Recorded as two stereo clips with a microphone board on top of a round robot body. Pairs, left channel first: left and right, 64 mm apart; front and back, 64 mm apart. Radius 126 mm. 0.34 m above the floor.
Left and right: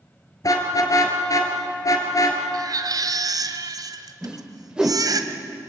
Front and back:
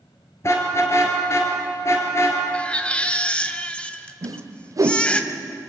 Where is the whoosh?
170° right, 1.7 m.